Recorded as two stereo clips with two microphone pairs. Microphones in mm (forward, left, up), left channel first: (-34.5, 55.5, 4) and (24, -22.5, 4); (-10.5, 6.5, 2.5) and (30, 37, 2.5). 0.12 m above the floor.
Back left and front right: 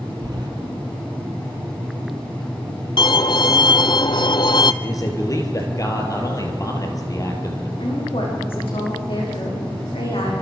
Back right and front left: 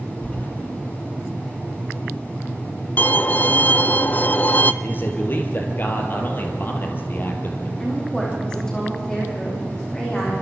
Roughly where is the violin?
Behind.